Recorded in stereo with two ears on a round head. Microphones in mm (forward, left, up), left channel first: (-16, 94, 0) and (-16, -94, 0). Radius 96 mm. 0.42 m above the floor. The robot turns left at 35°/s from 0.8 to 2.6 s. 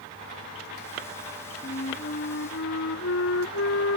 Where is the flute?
145° left; by 4.0 s 110° left.